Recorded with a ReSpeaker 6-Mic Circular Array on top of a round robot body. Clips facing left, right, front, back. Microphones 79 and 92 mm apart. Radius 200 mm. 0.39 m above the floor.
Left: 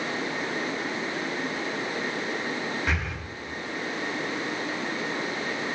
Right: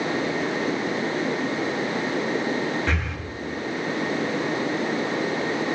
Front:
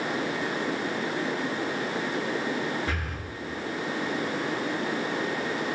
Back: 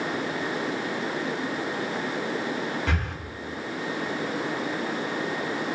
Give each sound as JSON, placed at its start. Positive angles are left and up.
{"t": 2.9, "sound": "breathing", "azimuth_deg": 175, "distance_m": 3.0}